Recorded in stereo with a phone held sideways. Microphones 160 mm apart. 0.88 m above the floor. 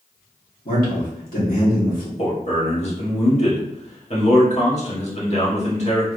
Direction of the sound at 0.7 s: 65° left (ahead or behind).